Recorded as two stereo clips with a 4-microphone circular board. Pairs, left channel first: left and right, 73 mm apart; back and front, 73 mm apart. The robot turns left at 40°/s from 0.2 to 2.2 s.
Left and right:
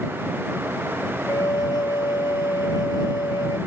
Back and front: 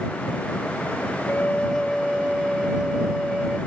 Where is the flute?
115° left; by 3.6 s 80° left.